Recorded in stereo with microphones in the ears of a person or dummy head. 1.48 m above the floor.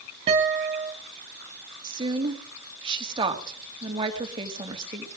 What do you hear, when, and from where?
0.3 s a guitar: 30° right (ahead or behind), 1.8 m
1.8 s a woman speaking: 30° right (ahead or behind), 2.5 m